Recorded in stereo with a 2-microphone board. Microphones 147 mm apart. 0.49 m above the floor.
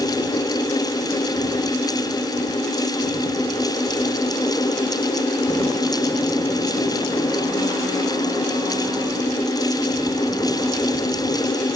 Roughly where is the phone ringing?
No phone ringing in this recording.